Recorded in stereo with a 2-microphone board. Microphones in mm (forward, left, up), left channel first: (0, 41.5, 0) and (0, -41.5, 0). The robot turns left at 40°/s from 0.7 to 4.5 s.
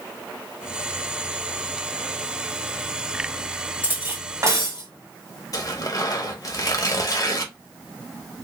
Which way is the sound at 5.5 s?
45° left (ahead or behind).